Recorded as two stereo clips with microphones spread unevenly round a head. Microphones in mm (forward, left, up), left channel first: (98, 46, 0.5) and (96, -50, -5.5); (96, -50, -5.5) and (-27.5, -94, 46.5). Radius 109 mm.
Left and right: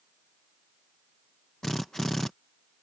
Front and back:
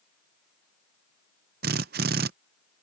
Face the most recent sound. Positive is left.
turn(degrees=175)